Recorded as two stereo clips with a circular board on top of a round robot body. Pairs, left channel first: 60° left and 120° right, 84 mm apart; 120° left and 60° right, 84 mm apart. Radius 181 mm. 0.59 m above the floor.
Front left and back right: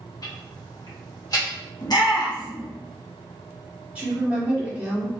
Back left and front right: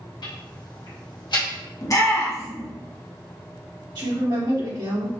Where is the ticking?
95° left, 1.6 m.